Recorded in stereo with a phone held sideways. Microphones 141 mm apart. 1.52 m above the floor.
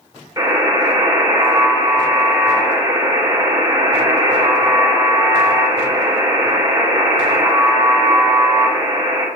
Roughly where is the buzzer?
Right.